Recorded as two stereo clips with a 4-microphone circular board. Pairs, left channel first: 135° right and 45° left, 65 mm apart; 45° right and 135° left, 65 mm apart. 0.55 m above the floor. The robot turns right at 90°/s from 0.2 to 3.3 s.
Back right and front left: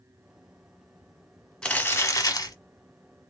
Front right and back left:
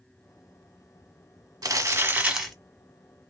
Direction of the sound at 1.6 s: 150° left.